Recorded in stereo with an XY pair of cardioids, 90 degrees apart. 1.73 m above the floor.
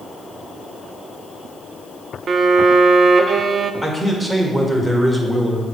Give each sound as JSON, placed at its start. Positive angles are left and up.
{"t": 2.3, "sound": "a violin", "azimuth_deg": -55, "distance_m": 0.6}
{"t": 3.8, "sound": "a man speaking", "azimuth_deg": -10, "distance_m": 1.8}